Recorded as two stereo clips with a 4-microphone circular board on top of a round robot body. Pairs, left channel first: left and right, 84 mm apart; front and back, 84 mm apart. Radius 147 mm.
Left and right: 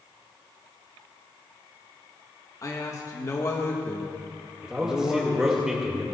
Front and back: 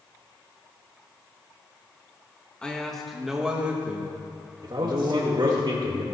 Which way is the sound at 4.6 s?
170° right.